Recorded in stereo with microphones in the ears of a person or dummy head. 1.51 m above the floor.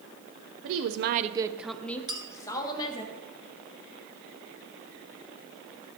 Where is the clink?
25° right (ahead or behind), 0.8 m.